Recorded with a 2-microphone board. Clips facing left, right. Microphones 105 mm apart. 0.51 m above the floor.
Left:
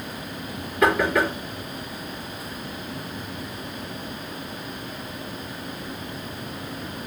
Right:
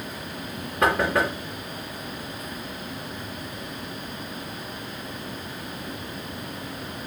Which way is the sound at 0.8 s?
30° right (ahead or behind).